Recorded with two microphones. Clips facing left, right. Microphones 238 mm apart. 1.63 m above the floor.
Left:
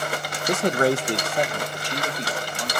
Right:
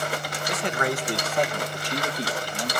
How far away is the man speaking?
About 0.8 m.